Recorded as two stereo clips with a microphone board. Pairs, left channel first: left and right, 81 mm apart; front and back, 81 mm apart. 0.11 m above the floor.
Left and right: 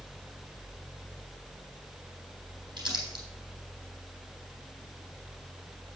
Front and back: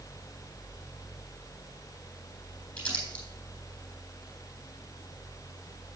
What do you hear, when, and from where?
2.8 s crumpling: 70° right, 3.5 m